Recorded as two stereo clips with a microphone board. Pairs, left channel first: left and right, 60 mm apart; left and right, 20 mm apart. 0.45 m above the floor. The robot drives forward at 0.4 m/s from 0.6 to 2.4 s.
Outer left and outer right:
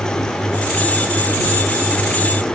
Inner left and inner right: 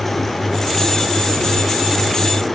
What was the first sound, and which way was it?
Only background noise.